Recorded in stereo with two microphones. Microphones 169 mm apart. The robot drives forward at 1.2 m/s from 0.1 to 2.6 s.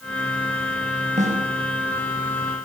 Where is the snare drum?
55° right (ahead or behind), 5 m; by 1.5 s 50° right (ahead or behind), 5.5 m.